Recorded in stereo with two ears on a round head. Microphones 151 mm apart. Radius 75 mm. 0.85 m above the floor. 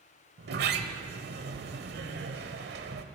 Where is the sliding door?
70° right (ahead or behind), 1.2 m.